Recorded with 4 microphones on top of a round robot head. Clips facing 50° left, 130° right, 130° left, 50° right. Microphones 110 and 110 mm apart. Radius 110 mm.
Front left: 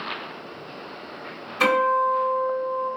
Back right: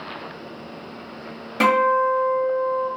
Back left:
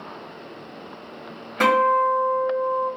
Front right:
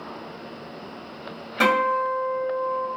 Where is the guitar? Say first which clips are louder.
Back right 3 dB, back left 3 dB; 135° right, 1.6 m.